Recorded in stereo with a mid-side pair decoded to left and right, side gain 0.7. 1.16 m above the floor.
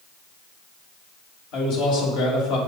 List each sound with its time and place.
1.5 s a man speaking: 65° left, 3 m